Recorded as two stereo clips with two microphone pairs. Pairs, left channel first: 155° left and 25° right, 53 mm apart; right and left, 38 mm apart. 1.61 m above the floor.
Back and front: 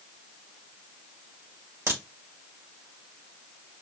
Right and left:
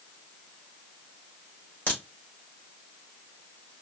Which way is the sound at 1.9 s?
60° right.